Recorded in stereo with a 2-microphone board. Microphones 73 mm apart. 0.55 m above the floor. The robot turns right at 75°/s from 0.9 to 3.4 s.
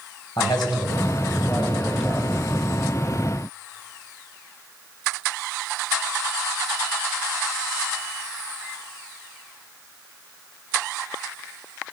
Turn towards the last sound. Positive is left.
turn(degrees=-75)